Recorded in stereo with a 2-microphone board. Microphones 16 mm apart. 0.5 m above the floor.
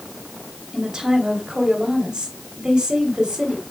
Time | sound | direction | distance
0.7 | a woman speaking | 60° right (ahead or behind) | 3 m